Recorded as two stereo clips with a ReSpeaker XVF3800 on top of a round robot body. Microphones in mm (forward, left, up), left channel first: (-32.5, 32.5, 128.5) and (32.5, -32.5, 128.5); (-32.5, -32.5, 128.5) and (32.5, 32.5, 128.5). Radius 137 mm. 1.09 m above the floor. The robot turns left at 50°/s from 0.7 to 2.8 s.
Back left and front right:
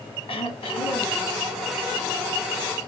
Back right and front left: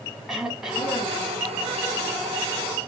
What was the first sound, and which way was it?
Throat clearing, 130° left.